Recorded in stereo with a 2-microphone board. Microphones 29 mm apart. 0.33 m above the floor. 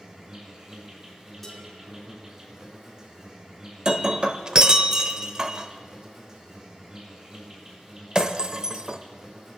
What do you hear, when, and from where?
0.0 s an insect: 25° right (ahead or behind), 4.5 m
1.4 s dishes clattering: centre (ahead or behind), 6.5 m
3.9 s breaking glass: 25° right (ahead or behind), 0.6 m